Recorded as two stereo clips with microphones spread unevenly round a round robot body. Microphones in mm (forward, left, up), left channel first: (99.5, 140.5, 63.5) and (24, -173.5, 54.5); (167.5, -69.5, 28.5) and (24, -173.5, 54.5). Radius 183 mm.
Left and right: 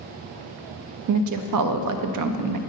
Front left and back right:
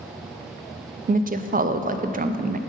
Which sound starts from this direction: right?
A woman speaking, at 1.1 s.